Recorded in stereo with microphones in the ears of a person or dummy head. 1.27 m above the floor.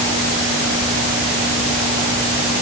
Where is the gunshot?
I don't hear a gunshot.